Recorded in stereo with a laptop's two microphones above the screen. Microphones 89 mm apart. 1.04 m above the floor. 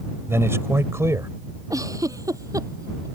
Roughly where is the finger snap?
No finger snap in this recording.